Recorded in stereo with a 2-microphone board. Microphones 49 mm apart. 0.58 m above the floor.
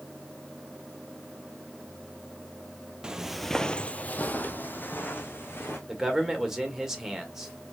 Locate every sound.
3.0 s footsteps: 15° right (ahead or behind), 0.7 m; by 5.8 s 40° left (ahead or behind), 2.0 m
5.9 s a man speaking: 10° right (ahead or behind), 1.8 m